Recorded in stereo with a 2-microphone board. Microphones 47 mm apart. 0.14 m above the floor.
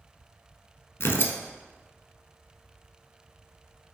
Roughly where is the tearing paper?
Left.